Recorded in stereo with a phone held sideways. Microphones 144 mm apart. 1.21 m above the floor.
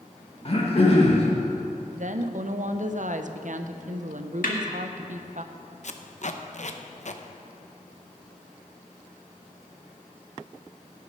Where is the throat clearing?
45° left (ahead or behind), 1.9 m.